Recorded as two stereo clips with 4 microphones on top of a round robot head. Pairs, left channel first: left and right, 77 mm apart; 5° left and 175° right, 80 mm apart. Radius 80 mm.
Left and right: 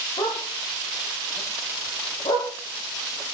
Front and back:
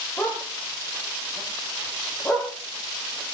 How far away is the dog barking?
About 7.5 m.